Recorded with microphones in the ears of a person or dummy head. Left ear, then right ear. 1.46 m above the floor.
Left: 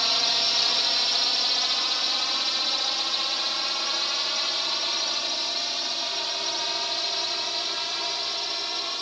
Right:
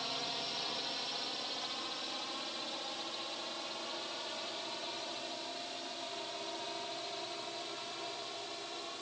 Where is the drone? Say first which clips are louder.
Left 16 dB; 50° left (ahead or behind); by 9.0 s 60° left (ahead or behind).